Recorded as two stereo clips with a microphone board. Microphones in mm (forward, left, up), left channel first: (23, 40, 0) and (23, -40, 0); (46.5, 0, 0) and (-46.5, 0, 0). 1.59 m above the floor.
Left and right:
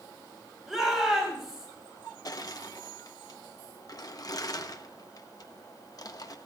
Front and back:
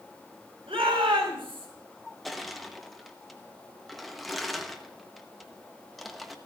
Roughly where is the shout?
Behind.